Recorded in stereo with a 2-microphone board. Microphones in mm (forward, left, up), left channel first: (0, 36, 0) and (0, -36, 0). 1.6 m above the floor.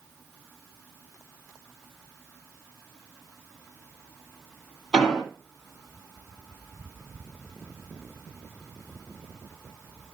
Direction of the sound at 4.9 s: 10° left (ahead or behind).